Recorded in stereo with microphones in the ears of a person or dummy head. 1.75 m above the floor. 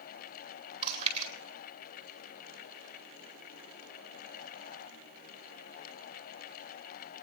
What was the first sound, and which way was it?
Chewing, 40° right (ahead or behind).